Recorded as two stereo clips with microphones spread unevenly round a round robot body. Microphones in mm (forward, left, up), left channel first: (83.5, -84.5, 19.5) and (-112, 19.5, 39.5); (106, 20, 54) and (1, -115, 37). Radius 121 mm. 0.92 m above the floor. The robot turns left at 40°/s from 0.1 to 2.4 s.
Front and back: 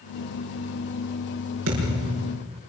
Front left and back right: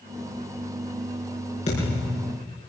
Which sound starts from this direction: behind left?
A thud, at 1.7 s.